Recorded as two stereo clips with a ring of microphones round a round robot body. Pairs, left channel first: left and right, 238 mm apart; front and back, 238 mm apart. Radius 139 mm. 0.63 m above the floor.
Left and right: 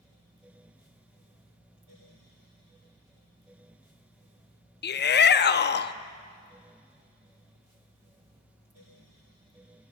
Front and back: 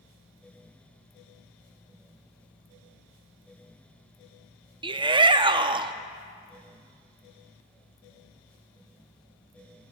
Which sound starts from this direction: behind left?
A shout, at 4.8 s.